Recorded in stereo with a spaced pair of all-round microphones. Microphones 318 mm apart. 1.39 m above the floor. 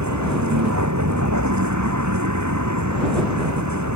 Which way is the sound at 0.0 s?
55° right (ahead or behind).